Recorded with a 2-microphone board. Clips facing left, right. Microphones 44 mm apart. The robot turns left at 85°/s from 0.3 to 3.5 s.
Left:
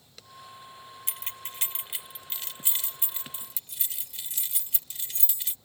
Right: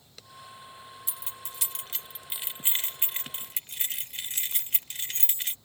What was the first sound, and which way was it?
Keys jangling, 55° left (ahead or behind).